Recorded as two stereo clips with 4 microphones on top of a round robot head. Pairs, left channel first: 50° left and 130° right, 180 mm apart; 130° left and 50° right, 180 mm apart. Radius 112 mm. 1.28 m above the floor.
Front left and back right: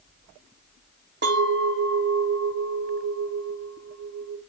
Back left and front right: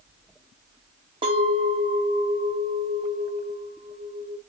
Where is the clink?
110° right, 0.7 m.